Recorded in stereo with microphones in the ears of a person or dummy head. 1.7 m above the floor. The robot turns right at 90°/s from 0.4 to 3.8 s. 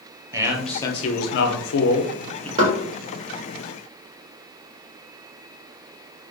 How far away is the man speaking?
About 0.8 m.